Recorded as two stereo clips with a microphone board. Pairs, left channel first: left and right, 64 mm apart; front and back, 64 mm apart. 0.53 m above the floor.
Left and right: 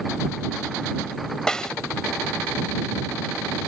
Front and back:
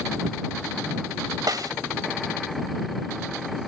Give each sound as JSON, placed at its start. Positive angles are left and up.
{"t": 1.5, "sound": "a snare drum", "azimuth_deg": 170}